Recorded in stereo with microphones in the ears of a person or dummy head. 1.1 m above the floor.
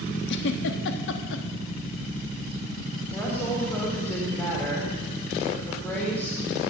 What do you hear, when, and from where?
0.3 s a giggle: 75° left (ahead or behind), 1.1 m
3.1 s a woman speaking: 15° left (ahead or behind), 3.5 m